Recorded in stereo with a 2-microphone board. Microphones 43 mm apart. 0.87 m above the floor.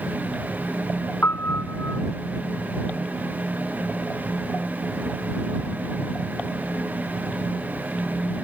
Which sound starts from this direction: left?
A piano, at 1.2 s.